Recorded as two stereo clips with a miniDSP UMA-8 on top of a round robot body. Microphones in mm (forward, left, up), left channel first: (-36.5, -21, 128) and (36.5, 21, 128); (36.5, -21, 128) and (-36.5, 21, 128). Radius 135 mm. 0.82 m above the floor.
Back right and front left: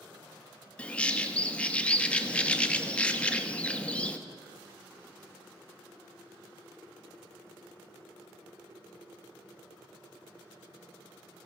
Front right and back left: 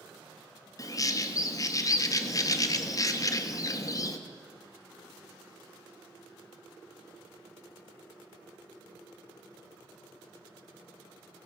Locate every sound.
0.8 s a bird: 75° right, 1.5 m